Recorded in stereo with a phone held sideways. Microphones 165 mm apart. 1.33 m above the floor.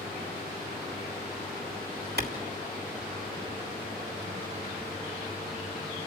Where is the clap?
70° right (ahead or behind), 3 m.